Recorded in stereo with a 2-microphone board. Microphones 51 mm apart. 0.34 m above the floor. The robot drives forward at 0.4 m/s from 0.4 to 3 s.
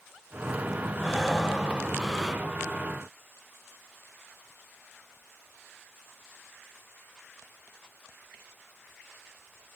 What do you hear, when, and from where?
1.0 s breathing: 5° left (ahead or behind), 0.9 m